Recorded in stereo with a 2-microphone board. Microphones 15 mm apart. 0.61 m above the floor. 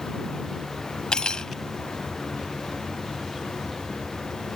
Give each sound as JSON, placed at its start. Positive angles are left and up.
{"t": 1.1, "sound": "cutlery clinking", "side_deg": 75}